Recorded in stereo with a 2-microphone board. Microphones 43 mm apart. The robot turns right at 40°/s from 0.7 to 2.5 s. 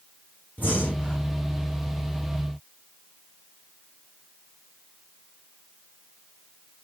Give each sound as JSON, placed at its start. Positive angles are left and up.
{"t": 0.6, "sound": "breathing", "side_deg": 45, "distance_m": 4.0}